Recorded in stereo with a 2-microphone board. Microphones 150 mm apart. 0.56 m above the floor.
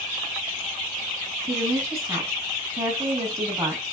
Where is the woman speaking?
20° right (ahead or behind), 4.5 m.